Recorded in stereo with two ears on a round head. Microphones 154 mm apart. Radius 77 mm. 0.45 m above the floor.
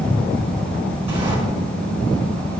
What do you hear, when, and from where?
1.1 s a sliding door: 35° right (ahead or behind), 5 m